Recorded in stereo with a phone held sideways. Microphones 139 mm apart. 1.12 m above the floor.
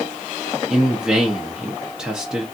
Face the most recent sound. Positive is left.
turn(degrees=-5)  # may be behind; listen again after turning